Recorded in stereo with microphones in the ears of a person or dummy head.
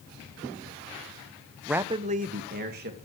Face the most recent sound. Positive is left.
turn(degrees=-50)  # may be behind; listen again after turning